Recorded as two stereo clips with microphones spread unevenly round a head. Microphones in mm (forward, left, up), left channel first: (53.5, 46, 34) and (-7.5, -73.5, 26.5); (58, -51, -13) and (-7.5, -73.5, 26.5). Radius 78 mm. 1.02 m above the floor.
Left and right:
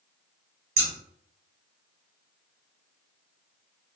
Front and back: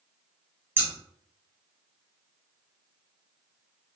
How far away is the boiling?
I don't hear boiling.